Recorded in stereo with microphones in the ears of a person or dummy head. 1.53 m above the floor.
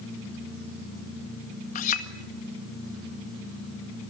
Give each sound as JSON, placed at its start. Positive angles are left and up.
{"t": 1.8, "sound": "a clink", "side_deg": 40, "distance_m": 1.7}